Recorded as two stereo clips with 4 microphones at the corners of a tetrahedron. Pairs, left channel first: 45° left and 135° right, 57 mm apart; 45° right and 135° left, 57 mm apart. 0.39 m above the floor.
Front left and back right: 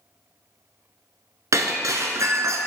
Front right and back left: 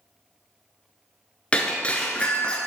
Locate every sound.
1.5 s breaking glass: 115° right, 0.9 m